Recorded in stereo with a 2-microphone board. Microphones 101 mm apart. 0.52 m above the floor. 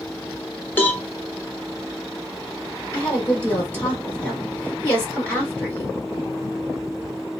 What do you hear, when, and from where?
0.8 s a cowbell: 15° left (ahead or behind), 0.9 m
2.9 s a woman speaking: 20° left (ahead or behind), 1.4 m